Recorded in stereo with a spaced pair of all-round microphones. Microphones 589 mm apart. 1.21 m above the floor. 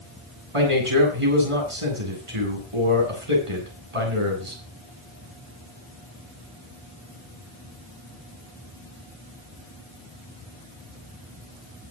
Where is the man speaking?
60° right (ahead or behind), 8.5 m.